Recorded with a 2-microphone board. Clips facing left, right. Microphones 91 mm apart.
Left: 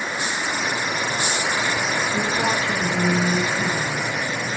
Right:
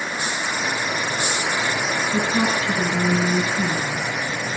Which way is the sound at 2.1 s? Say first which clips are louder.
Right 3 dB; 65° right (ahead or behind).